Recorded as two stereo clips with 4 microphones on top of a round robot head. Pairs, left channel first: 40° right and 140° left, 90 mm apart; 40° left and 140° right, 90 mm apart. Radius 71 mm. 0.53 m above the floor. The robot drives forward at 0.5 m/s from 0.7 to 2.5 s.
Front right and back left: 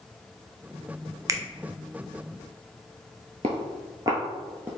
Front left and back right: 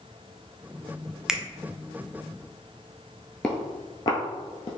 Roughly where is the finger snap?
Behind left.